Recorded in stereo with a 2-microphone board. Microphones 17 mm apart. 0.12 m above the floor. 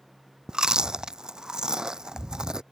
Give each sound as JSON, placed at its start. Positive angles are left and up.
{"t": 0.5, "sound": "chewing", "side_deg": -50}